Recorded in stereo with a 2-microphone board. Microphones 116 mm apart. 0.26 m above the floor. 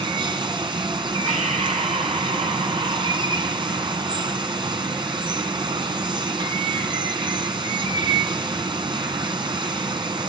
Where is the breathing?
75° right (ahead or behind), 7 m.